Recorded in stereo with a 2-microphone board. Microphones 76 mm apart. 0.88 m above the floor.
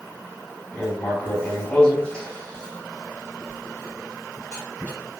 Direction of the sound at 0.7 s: 15° left (ahead or behind).